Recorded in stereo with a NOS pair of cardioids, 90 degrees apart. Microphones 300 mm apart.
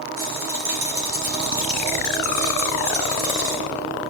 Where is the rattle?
45° right, 4.5 m.